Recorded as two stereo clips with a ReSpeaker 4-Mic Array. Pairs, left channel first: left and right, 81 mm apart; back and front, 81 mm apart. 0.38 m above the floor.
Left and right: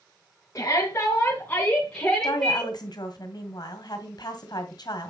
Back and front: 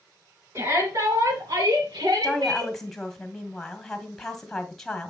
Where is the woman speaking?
100° left, 1.9 m.